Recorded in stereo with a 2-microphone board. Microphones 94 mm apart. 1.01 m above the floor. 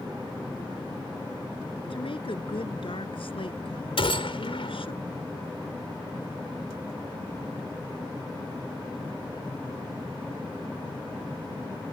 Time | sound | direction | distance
1.9 | a woman speaking | 70° left (ahead or behind) | ?
4.0 | a gunshot | 75° left (ahead or behind) | ?